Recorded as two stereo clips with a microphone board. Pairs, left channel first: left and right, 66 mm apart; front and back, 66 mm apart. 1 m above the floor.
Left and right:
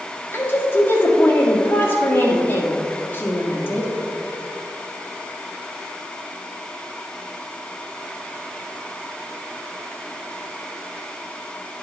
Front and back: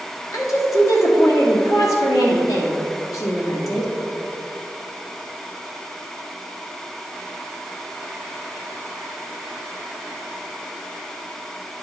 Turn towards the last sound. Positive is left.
turn(degrees=30)